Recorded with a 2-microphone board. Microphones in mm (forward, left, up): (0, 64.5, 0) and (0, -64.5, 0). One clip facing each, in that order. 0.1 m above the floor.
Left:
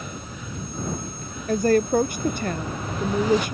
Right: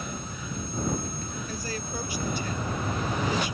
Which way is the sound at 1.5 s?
55° left (ahead or behind).